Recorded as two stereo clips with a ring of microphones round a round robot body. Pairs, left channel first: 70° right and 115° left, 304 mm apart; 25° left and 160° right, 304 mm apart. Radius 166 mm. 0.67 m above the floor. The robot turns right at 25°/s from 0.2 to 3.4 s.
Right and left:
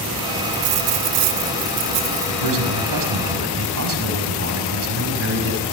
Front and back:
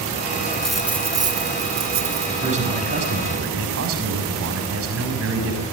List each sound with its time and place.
0.5 s a dropped coin: 110° left, 1.9 m; by 2.6 s 160° left, 1.9 m
2.3 s a man speaking: 130° left, 5.5 m; by 5.6 s 155° left, 5.5 m